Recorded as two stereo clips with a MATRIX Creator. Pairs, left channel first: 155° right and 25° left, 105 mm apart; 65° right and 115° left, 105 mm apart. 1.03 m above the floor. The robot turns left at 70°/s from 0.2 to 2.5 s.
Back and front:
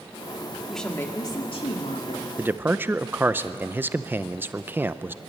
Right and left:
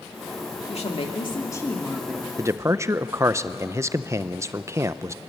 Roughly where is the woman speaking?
Ahead right.